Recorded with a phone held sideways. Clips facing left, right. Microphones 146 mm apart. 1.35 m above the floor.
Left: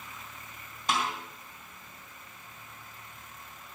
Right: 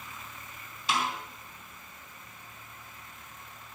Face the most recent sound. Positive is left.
turn(degrees=50)  # may be behind; listen again after turning